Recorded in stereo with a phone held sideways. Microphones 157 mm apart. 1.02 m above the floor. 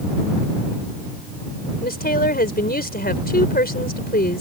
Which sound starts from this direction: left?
A woman speaking, at 1.8 s.